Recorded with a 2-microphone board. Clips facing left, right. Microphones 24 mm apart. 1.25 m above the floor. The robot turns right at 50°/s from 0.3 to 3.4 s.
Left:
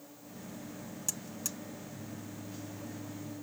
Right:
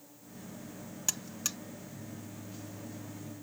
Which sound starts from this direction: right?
A buzzer, at 1.1 s.